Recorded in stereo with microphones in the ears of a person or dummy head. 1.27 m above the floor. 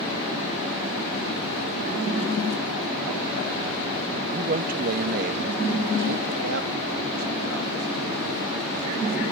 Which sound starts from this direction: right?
A man speaking, at 4.3 s.